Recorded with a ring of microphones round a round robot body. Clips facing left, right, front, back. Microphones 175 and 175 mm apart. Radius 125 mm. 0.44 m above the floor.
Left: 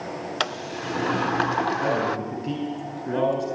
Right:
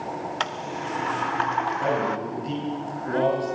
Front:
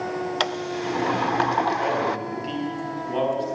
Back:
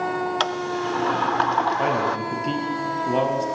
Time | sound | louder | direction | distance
0.4 | a sliding door | left 1 dB, back 1 dB | 70° left | 0.8 m
1.8 | a man speaking | even, back 1 dB | 145° left | 6 m